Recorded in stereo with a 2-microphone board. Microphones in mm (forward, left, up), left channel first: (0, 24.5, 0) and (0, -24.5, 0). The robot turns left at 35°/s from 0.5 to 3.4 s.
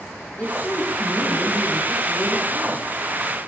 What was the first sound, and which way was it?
A woman speaking, 155° left.